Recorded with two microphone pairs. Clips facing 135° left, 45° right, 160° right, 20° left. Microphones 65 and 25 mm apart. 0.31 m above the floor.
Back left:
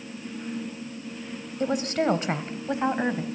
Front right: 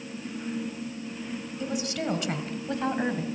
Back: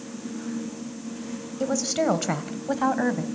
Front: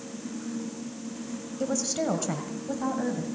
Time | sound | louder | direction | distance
1.6 | a woman speaking | back left 7 dB, back 4 dB | 135° left | 1.7 m